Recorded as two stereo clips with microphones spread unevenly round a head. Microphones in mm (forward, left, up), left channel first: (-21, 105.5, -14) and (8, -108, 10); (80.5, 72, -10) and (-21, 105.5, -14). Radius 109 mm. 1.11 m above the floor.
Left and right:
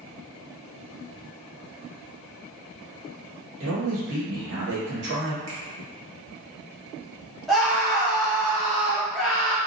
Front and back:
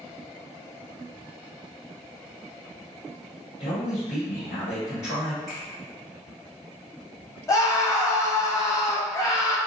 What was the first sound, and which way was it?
A man speaking, 45° right.